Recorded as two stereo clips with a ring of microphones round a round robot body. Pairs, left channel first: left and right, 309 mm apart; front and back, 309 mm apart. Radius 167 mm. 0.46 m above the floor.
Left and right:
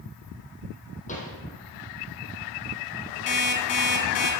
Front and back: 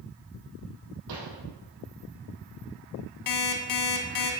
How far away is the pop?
About 3.5 m.